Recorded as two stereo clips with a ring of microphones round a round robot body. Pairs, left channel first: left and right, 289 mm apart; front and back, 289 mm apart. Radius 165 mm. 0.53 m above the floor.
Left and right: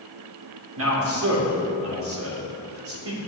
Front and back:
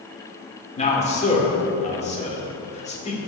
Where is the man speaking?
65° right, 2.0 m.